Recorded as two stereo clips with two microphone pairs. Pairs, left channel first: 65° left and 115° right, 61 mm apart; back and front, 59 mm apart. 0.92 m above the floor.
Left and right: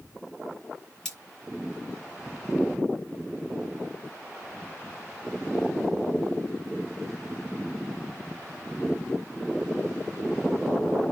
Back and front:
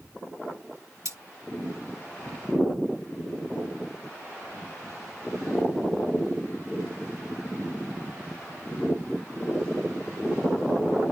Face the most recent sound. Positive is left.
turn(degrees=-20)